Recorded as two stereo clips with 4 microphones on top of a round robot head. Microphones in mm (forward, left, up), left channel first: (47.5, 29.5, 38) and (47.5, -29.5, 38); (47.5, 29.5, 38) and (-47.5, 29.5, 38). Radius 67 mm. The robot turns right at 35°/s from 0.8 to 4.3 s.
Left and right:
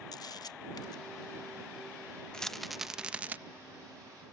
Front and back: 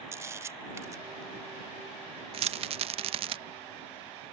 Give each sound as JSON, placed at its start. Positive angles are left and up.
{"t": 0.1, "sound": "a camera shutter", "azimuth_deg": 115}
{"t": 2.3, "sound": "a rattle", "azimuth_deg": 170}